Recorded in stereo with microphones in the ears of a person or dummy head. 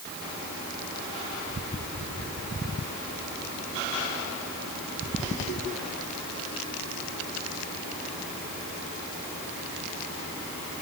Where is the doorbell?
I don't hear a doorbell.